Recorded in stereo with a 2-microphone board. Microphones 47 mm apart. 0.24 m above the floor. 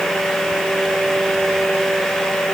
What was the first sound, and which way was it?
Only background noise.